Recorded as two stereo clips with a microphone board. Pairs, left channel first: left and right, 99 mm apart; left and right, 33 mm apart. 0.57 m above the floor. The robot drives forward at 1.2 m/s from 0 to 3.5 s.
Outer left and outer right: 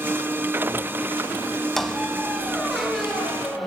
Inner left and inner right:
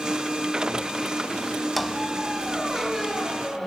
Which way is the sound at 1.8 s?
Centre (ahead or behind).